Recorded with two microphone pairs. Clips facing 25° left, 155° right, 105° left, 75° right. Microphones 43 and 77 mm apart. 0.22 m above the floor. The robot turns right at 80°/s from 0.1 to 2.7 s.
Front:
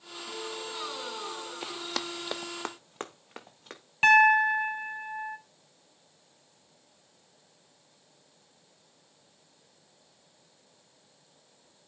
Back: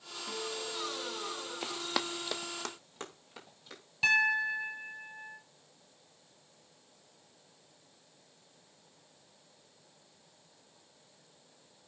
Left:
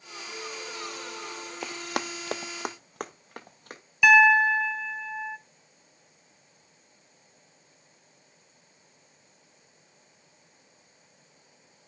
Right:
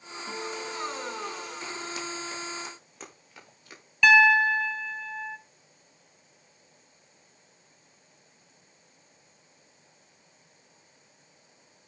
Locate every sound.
0.3 s a guitar: 90° right, 1.1 m; by 1.5 s 10° left, 1.1 m
1.6 s running footsteps: 120° left, 1.0 m; by 3.8 s 65° left, 2.5 m
4.0 s a piano: 30° left, 0.9 m